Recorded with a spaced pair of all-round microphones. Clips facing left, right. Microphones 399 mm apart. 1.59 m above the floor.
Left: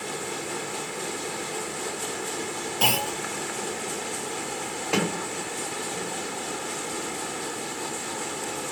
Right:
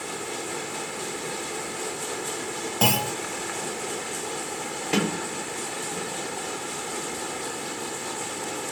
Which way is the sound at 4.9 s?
30° right (ahead or behind).